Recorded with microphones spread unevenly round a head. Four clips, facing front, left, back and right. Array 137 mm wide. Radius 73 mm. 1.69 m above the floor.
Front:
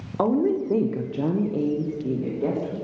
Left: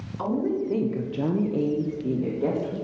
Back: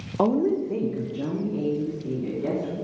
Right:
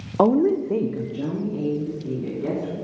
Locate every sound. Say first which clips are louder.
0.2 s a woman speaking: right 8 dB, even; 125° right, 0.7 m; by 2.8 s 75° left, 2.0 m